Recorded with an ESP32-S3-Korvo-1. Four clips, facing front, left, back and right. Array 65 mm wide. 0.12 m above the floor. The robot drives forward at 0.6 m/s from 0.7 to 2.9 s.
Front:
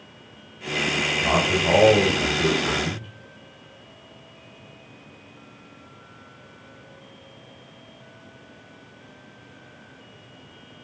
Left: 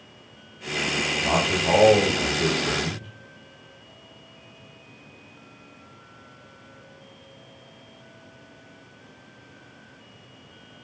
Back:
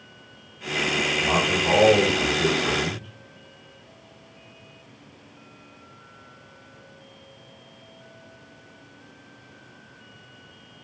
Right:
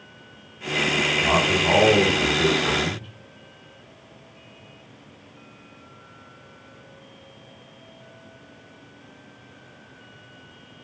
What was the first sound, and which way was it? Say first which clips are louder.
A man speaking: right 2 dB, front 2 dB; 60° right.